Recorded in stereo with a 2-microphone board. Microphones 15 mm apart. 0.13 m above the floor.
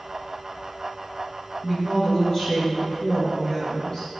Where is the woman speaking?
35° left (ahead or behind), 2 m.